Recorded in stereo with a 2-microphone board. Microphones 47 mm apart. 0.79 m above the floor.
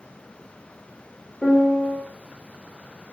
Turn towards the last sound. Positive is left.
turn(degrees=30)  # may be behind; listen again after turning